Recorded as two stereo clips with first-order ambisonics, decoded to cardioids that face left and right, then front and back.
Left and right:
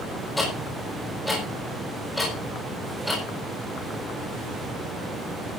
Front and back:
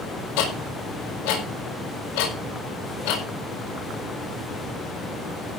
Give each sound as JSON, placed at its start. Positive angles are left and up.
{"t": 0.4, "sound": "ticking", "azimuth_deg": 10, "distance_m": 6.5}